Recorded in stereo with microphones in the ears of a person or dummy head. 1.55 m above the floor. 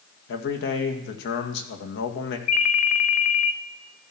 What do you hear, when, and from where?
0.3 s a man speaking: 75° left (ahead or behind), 2 m
2.5 s a ringtone: 55° left (ahead or behind), 1.1 m